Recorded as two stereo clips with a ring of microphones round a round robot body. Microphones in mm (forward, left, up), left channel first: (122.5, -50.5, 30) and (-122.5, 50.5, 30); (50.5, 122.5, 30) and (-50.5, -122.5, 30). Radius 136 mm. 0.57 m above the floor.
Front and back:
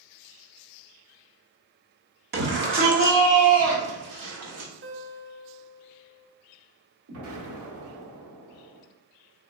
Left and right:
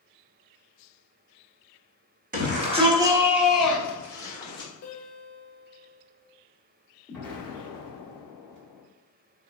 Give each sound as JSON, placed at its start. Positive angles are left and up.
{"t": 2.3, "sound": "a shout", "azimuth_deg": -160, "distance_m": 1.3}
{"t": 4.8, "sound": "a guitar", "azimuth_deg": 110, "distance_m": 1.3}
{"t": 7.1, "sound": "an explosion", "azimuth_deg": 155, "distance_m": 1.4}